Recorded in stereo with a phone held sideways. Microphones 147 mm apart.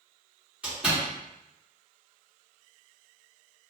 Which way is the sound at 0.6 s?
10° right (ahead or behind).